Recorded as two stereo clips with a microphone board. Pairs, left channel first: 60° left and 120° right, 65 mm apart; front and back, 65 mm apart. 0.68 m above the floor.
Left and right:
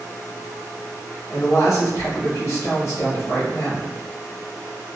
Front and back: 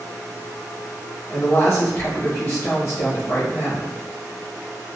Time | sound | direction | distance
1.3 | a woman speaking | 30° left | 1.1 m